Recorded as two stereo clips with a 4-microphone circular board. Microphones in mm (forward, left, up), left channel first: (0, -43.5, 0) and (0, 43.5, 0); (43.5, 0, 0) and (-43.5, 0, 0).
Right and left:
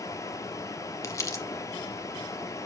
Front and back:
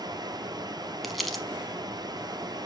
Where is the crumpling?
90° right, 1.1 m.